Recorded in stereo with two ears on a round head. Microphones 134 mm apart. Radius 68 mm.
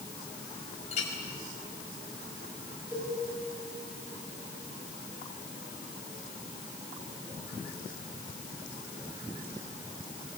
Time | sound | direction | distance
0.9 | a clink | 50° left (ahead or behind) | 5.5 m
2.9 | a cowbell | 15° right (ahead or behind) | 8.5 m